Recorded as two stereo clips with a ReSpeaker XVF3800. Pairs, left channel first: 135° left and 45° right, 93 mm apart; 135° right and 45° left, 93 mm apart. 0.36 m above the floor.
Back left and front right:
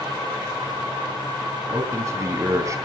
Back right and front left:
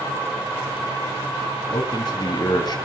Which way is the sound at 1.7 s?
100° right.